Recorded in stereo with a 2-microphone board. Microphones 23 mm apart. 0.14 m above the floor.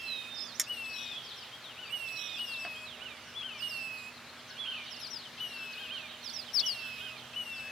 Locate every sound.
0.6 s a clink: centre (ahead or behind)